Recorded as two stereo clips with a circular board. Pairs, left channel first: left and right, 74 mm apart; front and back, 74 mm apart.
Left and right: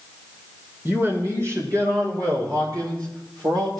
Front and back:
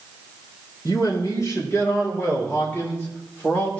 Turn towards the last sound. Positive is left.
turn(degrees=-70)